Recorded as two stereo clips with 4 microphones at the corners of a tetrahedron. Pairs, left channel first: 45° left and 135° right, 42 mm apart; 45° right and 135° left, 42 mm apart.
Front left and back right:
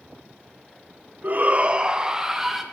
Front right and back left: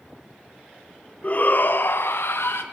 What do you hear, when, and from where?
1.2 s a shout: 95° right, 0.9 m; by 2.6 s 55° right, 1.8 m